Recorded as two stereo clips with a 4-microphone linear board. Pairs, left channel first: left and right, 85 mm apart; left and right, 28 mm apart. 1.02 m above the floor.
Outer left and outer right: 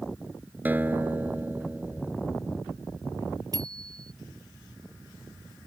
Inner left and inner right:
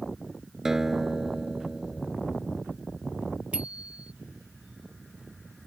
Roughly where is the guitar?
Right.